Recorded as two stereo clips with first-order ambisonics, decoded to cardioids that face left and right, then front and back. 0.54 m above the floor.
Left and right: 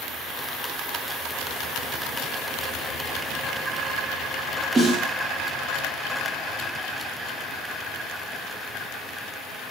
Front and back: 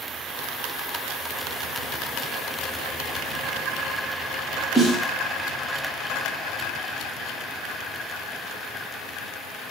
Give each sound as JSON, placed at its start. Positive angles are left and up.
{"t": 4.8, "sound": "a snare drum", "azimuth_deg": -95, "distance_m": 0.7}